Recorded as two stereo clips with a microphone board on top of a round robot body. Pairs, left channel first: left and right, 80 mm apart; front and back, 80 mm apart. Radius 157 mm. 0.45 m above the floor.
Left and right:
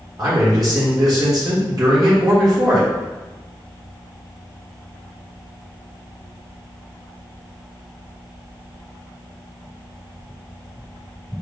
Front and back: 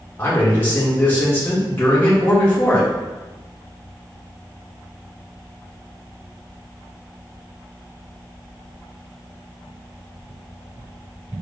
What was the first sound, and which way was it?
A man speaking, 60° right.